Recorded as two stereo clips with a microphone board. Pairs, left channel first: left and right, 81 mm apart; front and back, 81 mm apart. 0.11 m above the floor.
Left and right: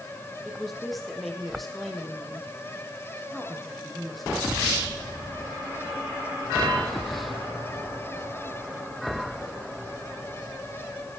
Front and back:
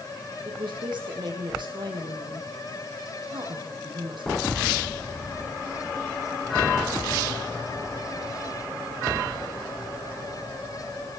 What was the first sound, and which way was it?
A woman speaking, straight behind.